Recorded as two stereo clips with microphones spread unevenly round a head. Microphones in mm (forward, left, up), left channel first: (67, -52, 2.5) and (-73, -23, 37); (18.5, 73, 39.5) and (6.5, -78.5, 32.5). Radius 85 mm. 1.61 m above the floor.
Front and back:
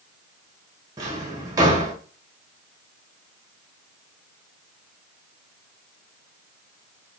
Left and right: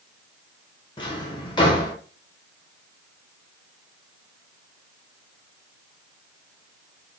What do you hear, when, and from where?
1.0 s a drawer: 135° left, 0.9 m